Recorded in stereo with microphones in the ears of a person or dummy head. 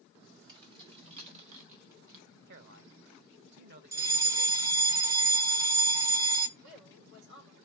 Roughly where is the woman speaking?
Right.